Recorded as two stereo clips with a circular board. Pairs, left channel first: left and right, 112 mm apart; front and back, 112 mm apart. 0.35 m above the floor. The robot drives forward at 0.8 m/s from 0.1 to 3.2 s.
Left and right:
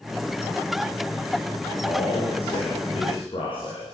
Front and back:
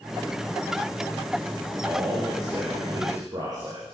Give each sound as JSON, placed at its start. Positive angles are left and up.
{"t": 1.8, "sound": "a man speaking", "azimuth_deg": 120, "distance_m": 7.0}